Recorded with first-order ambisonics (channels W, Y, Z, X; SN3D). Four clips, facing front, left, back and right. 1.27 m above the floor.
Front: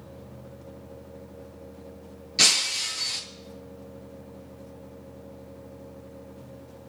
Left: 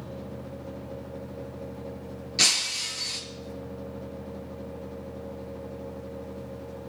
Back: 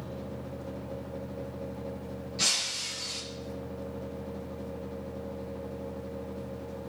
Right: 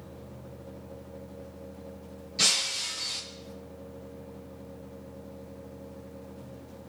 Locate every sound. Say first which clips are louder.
2.4 s breaking glass: left 2 dB, front 8 dB; 35° left, 3.5 m